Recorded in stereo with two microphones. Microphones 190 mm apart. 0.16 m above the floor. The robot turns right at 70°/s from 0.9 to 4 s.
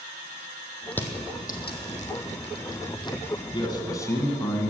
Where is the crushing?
5° left (ahead or behind), 1.3 m.